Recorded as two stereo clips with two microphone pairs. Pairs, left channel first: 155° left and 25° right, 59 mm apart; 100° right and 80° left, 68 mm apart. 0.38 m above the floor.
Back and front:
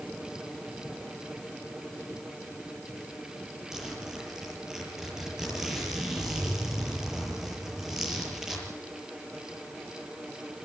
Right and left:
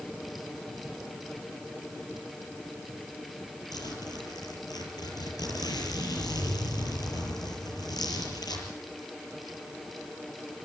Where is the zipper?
110° right, 7.5 m.